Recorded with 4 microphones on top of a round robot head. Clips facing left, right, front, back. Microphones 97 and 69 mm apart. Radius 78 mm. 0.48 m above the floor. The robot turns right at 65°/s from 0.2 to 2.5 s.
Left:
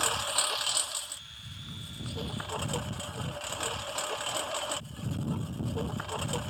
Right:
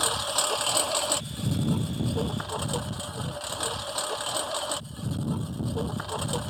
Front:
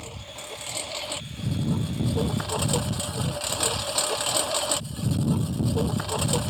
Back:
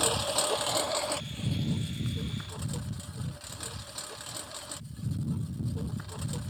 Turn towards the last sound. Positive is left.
turn(degrees=-15)